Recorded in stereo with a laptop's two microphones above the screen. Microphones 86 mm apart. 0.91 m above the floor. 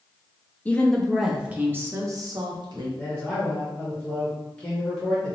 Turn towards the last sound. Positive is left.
turn(degrees=10)  # may be behind; listen again after turning